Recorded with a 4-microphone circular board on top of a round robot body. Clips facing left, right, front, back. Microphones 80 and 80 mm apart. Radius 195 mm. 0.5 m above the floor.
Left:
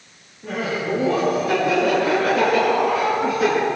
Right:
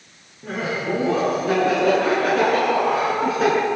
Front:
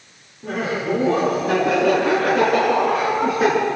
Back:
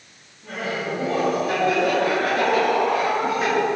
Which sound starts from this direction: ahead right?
Laughter, at 0.4 s.